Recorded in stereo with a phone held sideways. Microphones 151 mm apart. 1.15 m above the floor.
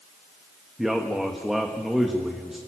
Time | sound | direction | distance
0.8 | a man speaking | centre (ahead or behind) | 1.4 m